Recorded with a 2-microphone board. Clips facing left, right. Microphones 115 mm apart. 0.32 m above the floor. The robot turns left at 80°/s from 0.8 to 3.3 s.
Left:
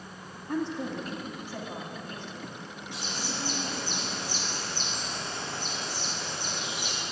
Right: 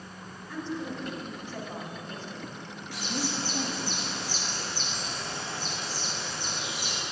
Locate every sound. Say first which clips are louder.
0.5 s a woman speaking: left 4 dB; 70° left, 1.8 m; by 3.9 s 130° right, 1.8 m
2.9 s a bird: right 5 dB; 160° left, 2.5 m; by 7.0 s 125° left, 2.5 m